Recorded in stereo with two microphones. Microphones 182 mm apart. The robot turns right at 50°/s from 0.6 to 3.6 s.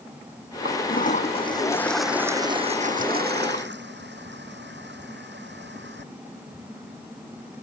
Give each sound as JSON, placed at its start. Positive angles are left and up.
{"t": 0.7, "sound": "a toilet flushing", "azimuth_deg": 110}